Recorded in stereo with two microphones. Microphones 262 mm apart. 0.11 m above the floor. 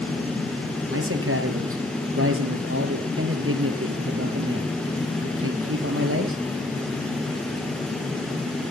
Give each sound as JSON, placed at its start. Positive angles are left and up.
{"t": 0.9, "sound": "a man speaking", "side_deg": -55, "distance_m": 2.5}